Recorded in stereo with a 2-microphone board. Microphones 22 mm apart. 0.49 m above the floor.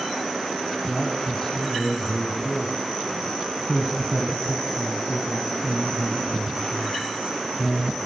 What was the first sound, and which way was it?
A man speaking, 20° left (ahead or behind).